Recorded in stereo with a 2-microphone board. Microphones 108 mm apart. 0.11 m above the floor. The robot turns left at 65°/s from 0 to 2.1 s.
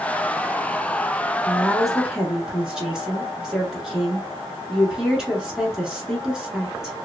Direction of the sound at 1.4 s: 10° left (ahead or behind).